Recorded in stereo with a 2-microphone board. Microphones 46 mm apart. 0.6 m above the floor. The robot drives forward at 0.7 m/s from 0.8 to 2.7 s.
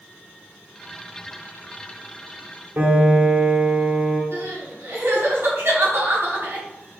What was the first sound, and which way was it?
A piano, 50° right (ahead or behind).